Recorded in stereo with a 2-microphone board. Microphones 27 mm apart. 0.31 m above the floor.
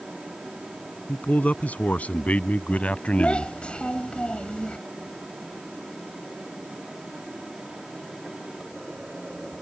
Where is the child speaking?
45° left (ahead or behind).